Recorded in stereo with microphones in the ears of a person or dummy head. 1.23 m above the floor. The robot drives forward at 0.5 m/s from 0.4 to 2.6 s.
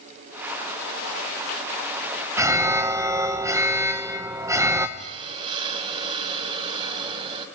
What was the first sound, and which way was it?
An alarm, 20° right (ahead or behind).